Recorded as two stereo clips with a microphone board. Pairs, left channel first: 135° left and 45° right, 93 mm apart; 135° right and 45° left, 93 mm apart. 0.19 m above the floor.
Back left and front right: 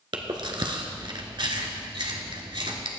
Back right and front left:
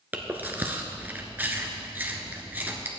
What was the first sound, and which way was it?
Chewing, 25° right.